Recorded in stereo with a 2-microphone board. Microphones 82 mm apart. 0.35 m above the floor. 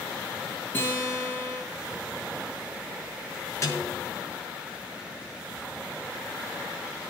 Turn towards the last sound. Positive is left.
turn(degrees=35)  # may be behind; listen again after turning